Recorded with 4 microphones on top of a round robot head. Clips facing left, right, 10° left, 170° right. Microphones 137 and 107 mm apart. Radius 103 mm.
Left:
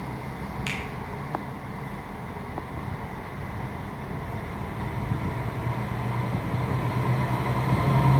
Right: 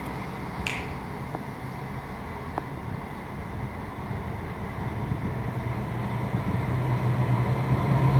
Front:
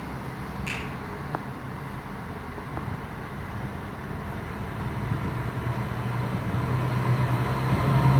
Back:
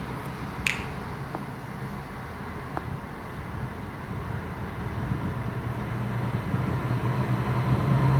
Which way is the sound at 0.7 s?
175° right.